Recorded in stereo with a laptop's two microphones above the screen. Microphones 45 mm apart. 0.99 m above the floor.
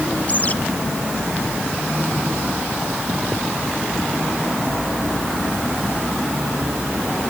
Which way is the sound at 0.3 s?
35° left (ahead or behind).